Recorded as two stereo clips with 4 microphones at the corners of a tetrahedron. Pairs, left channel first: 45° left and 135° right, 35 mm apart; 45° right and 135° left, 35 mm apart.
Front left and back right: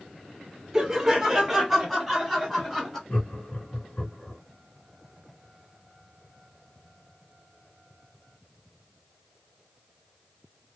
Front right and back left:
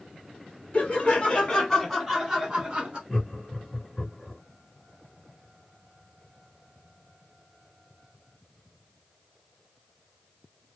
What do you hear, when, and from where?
0.7 s laughter: 50° right, 1.3 m; by 3.0 s 115° left, 1.2 m
3.1 s laughter: 35° left, 2 m